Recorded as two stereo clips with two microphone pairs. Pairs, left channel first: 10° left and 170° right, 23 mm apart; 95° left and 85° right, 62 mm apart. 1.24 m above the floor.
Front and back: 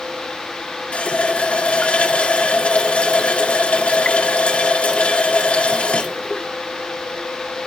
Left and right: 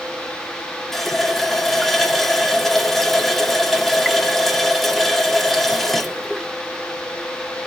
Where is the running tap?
10° left, 1.5 m.